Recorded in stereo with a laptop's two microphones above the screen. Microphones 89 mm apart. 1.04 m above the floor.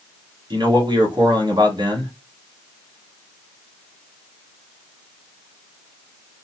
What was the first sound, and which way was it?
A man speaking, 60° right (ahead or behind).